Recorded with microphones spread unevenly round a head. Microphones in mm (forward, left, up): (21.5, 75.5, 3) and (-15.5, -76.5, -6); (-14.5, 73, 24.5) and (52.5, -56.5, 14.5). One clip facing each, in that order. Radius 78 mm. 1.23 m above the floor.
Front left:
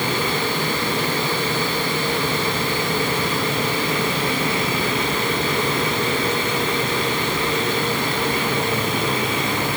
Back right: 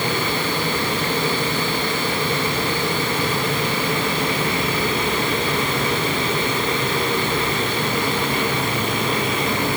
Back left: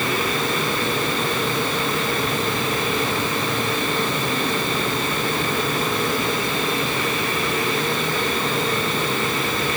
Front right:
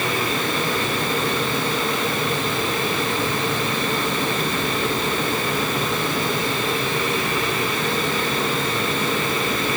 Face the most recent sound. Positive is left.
No sound to turn to.